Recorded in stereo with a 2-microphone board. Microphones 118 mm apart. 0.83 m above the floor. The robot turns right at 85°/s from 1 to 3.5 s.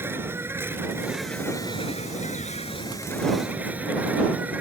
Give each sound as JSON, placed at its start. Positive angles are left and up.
{"t": 0.0, "sound": "an insect", "azimuth_deg": -20}